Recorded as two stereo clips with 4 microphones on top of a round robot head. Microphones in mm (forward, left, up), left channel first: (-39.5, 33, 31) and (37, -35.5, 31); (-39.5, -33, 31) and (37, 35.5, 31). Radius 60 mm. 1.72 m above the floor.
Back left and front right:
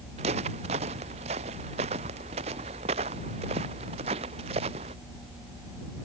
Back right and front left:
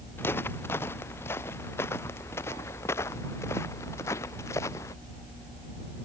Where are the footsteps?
70° right; by 5.0 s 75° right.